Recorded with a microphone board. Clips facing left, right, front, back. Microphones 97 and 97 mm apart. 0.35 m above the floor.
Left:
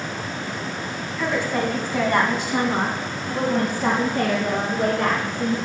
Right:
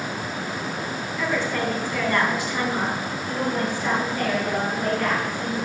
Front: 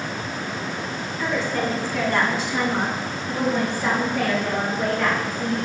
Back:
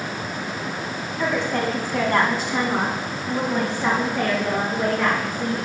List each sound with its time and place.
1.2 s a woman speaking: 170° left, 2.5 m; by 5.6 s 100° left, 3.5 m